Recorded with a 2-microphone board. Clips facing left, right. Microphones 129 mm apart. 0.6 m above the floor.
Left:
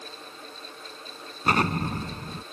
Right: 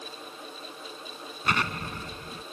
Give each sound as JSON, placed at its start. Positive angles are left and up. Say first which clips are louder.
{"t": 1.4, "sound": "an explosion", "louder": "left 6 dB", "side_deg": 40}